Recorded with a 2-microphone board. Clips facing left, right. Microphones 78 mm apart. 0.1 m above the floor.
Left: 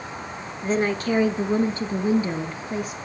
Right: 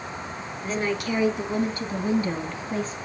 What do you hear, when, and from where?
0.6 s a woman speaking: 35° left (ahead or behind), 1.7 m; by 3.0 s 10° left (ahead or behind), 2 m